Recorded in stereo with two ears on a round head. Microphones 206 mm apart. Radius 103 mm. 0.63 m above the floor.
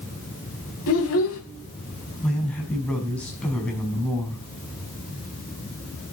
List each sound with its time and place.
0.9 s a child speaking: 65° left (ahead or behind), 2.5 m
2.2 s a man speaking: 5° left (ahead or behind), 5 m